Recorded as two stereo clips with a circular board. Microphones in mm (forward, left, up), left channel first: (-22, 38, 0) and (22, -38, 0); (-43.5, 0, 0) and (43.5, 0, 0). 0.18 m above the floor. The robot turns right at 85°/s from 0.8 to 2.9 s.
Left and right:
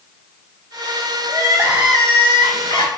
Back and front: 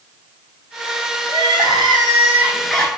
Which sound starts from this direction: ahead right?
Crying, at 1.3 s.